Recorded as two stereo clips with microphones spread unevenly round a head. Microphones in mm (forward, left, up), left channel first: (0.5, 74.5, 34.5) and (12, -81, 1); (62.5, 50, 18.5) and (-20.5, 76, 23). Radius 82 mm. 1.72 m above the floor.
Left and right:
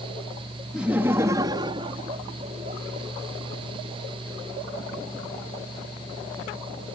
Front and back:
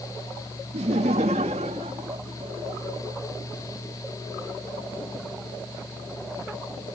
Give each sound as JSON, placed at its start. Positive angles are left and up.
{"t": 0.7, "sound": "laughter", "azimuth_deg": -175}